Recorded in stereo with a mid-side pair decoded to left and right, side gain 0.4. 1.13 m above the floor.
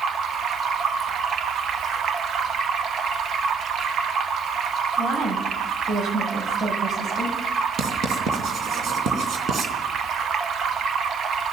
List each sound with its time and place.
0.0 s running water: 55° right, 1.3 m
5.0 s a woman speaking: 55° right, 6 m
7.8 s writing: 60° right, 3 m